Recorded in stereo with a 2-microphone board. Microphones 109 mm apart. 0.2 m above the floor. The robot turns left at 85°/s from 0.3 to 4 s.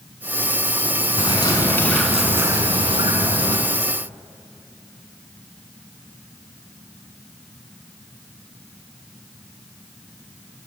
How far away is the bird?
About 1.3 m.